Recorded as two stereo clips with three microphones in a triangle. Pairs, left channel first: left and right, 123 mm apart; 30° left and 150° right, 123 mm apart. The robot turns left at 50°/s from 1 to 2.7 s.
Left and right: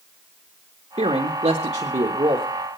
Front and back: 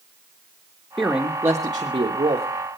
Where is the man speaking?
60° right, 1.3 m; by 2.5 s 130° right, 1.3 m.